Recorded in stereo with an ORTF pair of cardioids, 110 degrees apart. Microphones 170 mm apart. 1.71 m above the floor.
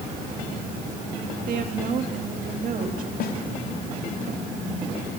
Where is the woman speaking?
55° right, 3.5 m.